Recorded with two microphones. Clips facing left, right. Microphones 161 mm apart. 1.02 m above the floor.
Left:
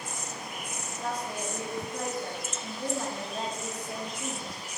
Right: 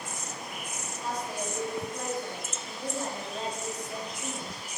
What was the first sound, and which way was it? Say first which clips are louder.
A woman speaking: even; 55° left (ahead or behind).